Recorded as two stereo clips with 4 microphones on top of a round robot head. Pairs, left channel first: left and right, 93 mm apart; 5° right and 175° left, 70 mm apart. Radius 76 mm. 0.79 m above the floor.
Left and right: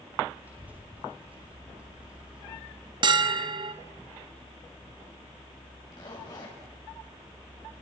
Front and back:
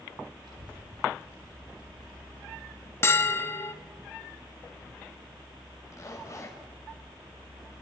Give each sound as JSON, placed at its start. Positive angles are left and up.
{"t": 0.4, "sound": "a child speaking", "azimuth_deg": -160, "distance_m": 8.0}
{"t": 3.0, "sound": "a bell", "azimuth_deg": -60, "distance_m": 1.3}
{"t": 5.9, "sound": "a zipper", "azimuth_deg": 40, "distance_m": 5.0}